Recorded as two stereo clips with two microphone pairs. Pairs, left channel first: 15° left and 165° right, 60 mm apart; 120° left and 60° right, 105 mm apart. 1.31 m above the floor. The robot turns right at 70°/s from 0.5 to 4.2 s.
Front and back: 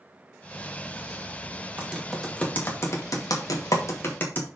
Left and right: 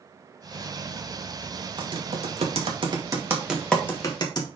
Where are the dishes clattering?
I don't hear dishes clattering.